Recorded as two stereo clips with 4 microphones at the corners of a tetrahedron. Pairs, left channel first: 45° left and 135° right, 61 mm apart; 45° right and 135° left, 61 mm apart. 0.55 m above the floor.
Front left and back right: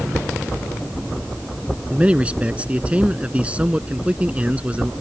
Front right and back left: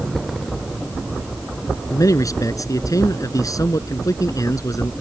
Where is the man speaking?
65° right.